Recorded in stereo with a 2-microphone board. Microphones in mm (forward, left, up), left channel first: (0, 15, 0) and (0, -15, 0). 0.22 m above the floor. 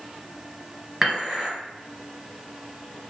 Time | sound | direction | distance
1.0 | dishes clattering | 20° right (ahead or behind) | 1.8 m